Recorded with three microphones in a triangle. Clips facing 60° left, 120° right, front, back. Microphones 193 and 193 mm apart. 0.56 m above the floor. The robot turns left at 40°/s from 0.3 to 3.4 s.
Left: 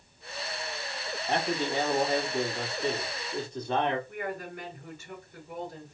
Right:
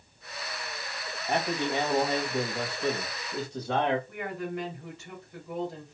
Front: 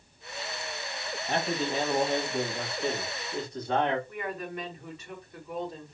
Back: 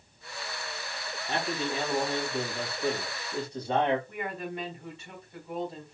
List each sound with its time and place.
1.3 s a man speaking: 35° right, 2.5 m; by 4.0 s 120° right, 2.5 m
4.1 s a woman speaking: 120° right, 4 m